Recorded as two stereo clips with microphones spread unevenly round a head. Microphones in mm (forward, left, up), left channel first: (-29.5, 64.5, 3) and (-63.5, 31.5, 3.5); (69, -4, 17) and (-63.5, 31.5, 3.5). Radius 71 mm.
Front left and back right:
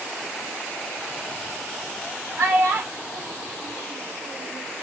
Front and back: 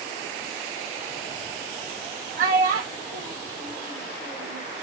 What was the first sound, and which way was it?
A child speaking, 160° right.